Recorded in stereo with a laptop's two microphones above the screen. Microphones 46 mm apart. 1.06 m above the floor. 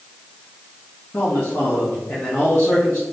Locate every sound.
1.1 s a man speaking: 55° left (ahead or behind), 1.8 m